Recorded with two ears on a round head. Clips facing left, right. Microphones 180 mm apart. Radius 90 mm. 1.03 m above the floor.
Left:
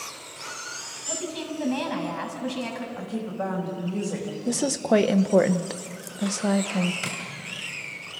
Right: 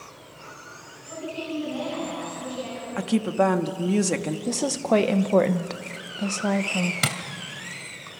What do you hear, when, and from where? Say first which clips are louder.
1.1 s a woman speaking: even; 80° left, 6 m
3.0 s a woman speaking: right 11 dB; 80° right, 1.5 m
4.5 s a woman speaking: left 1 dB; 5° left (ahead or behind), 0.8 m
7.0 s tapping: right 5 dB; 75° right (ahead or behind), 2 m